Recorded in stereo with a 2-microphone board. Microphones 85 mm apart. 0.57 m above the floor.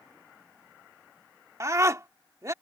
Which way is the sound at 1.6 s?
40° right (ahead or behind).